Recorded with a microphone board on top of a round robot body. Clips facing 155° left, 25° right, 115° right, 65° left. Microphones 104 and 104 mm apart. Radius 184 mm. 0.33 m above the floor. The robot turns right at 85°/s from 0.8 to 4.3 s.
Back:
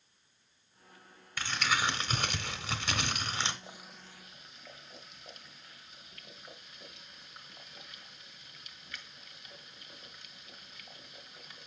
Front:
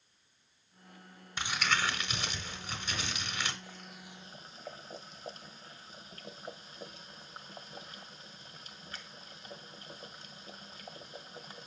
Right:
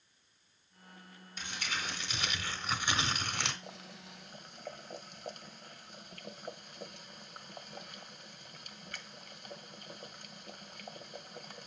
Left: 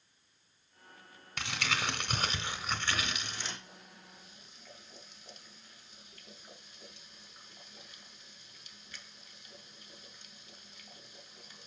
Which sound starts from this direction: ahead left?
Crumpling, at 1.4 s.